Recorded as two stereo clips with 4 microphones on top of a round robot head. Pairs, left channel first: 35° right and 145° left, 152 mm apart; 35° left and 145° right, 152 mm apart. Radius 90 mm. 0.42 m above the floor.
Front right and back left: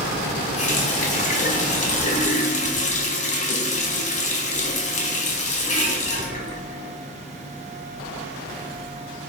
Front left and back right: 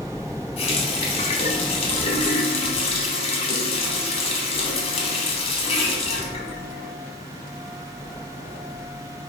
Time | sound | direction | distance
0.6 | a running tap | 10° right | 1.2 m